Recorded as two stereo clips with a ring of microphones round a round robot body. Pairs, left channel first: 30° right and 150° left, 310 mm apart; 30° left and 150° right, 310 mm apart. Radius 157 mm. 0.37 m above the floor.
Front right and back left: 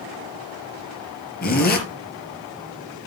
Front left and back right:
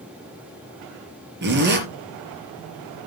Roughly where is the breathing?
I don't hear breathing.